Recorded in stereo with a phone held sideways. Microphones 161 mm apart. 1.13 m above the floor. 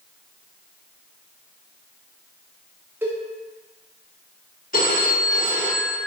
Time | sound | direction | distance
3.0 | a cowbell | 15° right (ahead or behind) | 0.6 m
4.7 | a phone ringing | 60° left (ahead or behind) | 0.9 m